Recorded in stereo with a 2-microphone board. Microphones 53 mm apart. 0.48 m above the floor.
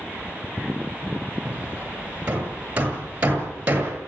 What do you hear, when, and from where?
1.4 s hammering: 25° right (ahead or behind), 8 m